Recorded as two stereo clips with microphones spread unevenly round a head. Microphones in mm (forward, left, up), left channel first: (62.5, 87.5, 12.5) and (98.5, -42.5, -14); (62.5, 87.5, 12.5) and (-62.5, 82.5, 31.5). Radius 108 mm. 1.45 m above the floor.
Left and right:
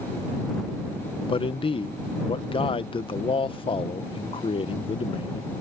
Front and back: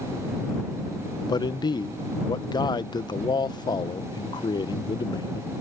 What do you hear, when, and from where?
1.3 s a man speaking: 60° left